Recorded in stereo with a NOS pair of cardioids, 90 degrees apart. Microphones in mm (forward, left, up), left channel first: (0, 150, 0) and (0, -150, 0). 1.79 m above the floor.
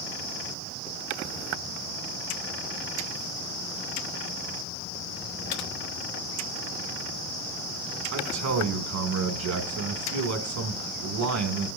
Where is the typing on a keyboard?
70° left, 1.2 m.